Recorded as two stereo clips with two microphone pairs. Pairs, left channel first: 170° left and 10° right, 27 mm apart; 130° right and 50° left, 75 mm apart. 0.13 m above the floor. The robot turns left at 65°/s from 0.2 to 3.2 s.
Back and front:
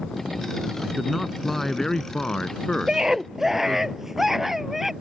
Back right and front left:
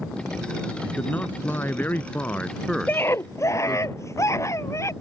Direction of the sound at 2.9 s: 70° right.